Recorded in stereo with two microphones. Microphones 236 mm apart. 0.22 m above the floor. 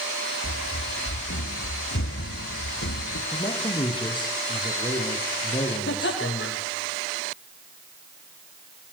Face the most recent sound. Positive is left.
turn(degrees=55)  # may be behind; listen again after turning